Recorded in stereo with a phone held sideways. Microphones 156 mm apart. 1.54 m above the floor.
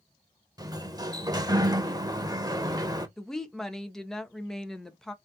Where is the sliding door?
25° right (ahead or behind), 0.5 m.